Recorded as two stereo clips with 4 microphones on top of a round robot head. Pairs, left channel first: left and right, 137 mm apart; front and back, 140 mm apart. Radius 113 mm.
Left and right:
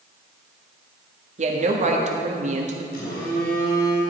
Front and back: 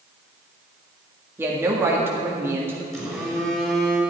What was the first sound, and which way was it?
A woman speaking, 105° right.